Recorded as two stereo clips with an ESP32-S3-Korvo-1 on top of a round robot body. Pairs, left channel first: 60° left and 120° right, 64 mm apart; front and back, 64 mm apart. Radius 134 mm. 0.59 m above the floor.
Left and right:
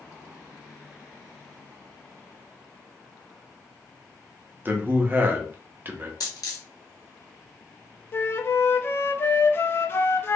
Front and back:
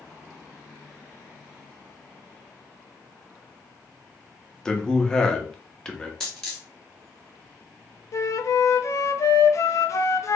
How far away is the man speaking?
About 1.0 m.